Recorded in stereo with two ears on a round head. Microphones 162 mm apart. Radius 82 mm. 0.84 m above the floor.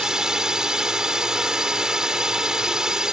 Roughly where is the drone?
Centre.